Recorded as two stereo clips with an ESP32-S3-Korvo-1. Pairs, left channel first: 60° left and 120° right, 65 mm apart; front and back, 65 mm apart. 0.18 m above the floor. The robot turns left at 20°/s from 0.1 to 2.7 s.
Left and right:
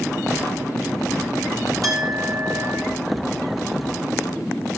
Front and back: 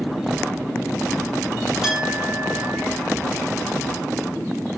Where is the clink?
100° right, 6 m; by 2.8 s 115° right, 6 m.